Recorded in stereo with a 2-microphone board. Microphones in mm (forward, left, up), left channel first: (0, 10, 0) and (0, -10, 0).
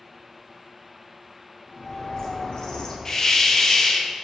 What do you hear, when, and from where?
1.7 s a bird: 35° left (ahead or behind), 1.4 m
3.0 s a hiss: 25° left (ahead or behind), 0.9 m